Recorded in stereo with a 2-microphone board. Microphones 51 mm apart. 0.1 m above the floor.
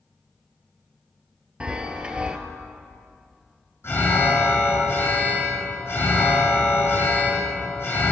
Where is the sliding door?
I don't hear a sliding door.